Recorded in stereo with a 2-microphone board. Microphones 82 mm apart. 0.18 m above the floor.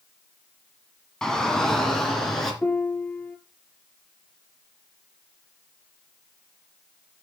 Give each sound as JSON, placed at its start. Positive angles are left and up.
{"t": 1.2, "sound": "a shout", "side_deg": 5, "distance_m": 1.8}
{"t": 2.6, "sound": "a piano", "side_deg": 20, "distance_m": 0.9}